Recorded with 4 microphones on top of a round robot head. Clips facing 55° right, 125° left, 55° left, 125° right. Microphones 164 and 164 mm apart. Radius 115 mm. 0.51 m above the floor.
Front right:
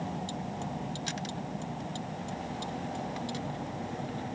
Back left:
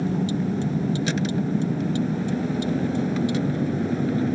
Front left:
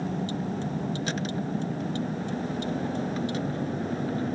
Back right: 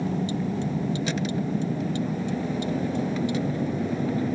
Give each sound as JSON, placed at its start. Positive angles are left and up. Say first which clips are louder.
{"t": 0.0, "sound": "a vehicle", "louder": "back left 12 dB, back right 3 dB", "azimuth_deg": 155}